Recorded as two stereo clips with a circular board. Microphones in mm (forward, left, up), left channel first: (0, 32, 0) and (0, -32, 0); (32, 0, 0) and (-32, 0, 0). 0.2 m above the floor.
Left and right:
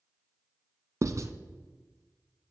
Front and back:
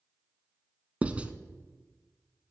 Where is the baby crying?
No baby crying in this recording.